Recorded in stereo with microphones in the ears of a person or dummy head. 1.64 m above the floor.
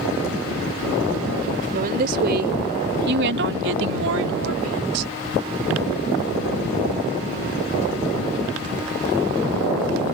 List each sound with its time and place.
1.7 s a woman speaking: 45° right (ahead or behind); by 5.1 s 85° right